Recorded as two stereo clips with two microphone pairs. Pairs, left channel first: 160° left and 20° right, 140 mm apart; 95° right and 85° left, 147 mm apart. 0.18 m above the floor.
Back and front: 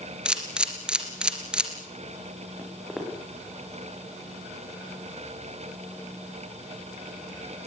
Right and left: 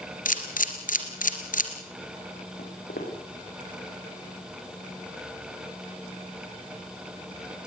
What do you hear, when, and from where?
0.2 s a camera shutter: 105° right, 3 m
2.6 s footsteps: 110° right, 6.5 m